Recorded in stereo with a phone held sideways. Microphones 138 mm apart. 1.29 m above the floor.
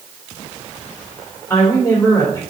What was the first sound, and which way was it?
A woman speaking, 10° left (ahead or behind).